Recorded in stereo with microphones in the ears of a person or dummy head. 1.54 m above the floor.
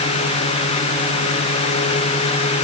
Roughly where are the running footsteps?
I don't hear running footsteps.